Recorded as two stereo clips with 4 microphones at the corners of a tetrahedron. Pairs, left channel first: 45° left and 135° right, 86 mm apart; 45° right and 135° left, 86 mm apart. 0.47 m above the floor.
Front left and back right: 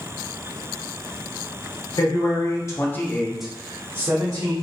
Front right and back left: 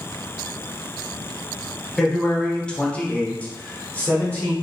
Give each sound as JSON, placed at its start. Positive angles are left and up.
{"t": 2.0, "sound": "a man speaking", "azimuth_deg": 35, "distance_m": 1.3}